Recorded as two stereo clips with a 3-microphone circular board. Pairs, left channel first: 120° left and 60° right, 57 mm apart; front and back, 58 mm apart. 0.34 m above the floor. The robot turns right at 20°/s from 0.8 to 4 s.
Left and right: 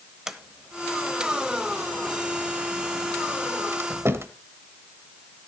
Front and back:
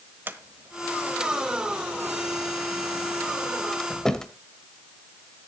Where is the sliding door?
140° right, 1.0 m; by 4.3 s 75° right, 1.0 m.